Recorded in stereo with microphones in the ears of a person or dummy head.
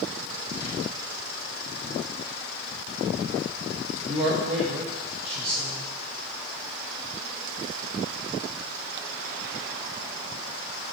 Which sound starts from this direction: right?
A man speaking, at 4.1 s.